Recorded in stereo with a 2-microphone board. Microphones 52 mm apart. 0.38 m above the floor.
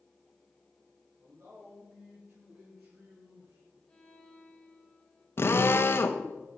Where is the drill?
50° left (ahead or behind), 0.8 m.